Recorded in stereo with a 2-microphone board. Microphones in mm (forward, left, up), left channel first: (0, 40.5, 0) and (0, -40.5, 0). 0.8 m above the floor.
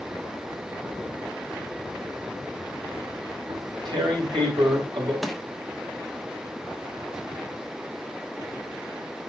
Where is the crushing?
Centre (ahead or behind), 1.6 m.